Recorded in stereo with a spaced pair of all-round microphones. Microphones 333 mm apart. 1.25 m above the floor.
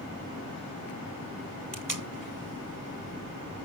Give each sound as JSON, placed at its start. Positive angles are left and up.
{"t": 1.7, "sound": "tape being pulled", "side_deg": -65, "distance_m": 1.4}